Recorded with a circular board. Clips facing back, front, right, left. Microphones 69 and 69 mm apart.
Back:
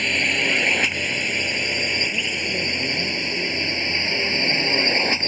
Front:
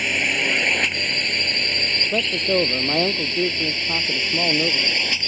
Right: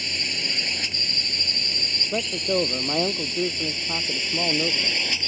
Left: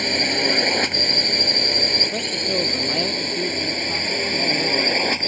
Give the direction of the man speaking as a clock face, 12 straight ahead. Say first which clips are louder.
Front 5 dB, even; 12 o'clock.